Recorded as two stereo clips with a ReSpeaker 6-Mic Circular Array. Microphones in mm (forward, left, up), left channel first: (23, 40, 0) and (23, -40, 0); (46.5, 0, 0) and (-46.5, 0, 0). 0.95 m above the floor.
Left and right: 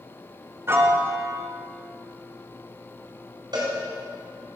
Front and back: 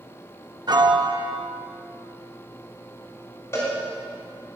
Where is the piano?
145° right, 1.0 m.